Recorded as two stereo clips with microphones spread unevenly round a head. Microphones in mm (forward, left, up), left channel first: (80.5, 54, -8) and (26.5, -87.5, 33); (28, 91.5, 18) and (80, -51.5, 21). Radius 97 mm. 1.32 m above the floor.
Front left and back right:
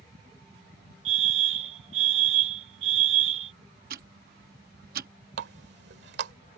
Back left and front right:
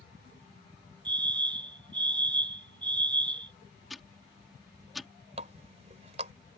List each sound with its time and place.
1.1 s a fire alarm: 135° right
3.9 s ticking: 160° right
5.4 s a running tap: 130° right